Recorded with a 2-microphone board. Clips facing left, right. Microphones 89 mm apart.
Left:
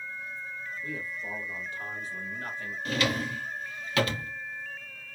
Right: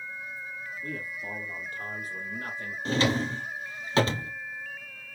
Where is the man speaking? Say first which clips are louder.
Right 1 dB; 50° right (ahead or behind), 2.5 m; by 2.8 s 35° right (ahead or behind), 3 m.